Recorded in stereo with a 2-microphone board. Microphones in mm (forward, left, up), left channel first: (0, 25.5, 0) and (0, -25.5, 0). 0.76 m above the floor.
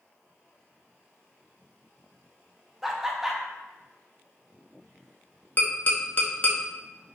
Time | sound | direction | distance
2.8 | laughter | 5° right (ahead or behind) | 0.6 m
5.6 | tapping | 35° left (ahead or behind) | 0.6 m